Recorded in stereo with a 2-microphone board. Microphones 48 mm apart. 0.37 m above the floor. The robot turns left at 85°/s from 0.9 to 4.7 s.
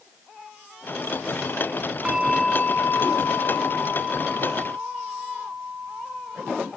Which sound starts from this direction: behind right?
A bell, at 2.0 s.